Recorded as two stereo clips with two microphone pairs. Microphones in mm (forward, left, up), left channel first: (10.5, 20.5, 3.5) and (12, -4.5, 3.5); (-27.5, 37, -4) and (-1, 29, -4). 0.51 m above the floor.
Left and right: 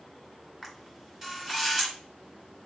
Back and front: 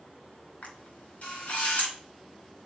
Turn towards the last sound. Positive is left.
turn(degrees=-170)